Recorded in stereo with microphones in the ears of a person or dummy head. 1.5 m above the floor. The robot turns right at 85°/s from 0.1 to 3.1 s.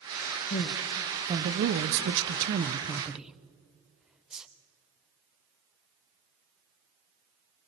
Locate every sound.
0.5 s a man speaking: 45° left (ahead or behind), 0.7 m; by 4.5 s 5° right (ahead or behind), 0.7 m